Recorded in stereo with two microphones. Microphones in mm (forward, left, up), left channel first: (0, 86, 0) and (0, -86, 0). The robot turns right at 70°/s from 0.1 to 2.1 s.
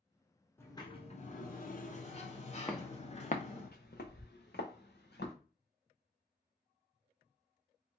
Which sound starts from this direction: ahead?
A sliding door, at 0.6 s.